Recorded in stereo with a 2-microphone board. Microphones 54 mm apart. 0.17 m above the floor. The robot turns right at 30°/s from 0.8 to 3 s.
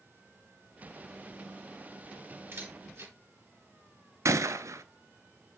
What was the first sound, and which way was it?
A camera shutter, 45° right (ahead or behind).